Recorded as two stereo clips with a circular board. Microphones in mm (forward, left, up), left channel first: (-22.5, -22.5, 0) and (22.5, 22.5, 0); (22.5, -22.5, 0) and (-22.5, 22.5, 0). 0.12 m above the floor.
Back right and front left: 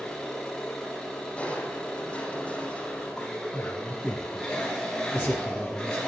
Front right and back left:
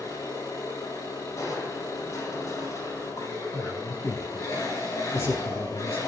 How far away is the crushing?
About 5.5 m.